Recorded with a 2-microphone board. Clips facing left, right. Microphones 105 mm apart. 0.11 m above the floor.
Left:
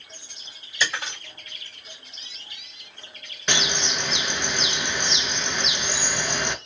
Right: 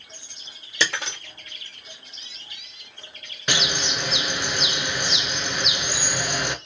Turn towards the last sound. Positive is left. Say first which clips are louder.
# even
turn(degrees=-10)  # may be behind; listen again after turning